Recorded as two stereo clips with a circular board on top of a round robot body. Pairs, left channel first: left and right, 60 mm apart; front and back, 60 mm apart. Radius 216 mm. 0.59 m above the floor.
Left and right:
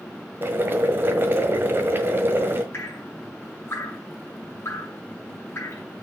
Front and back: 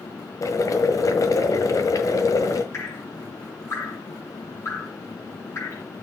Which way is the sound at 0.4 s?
30° right.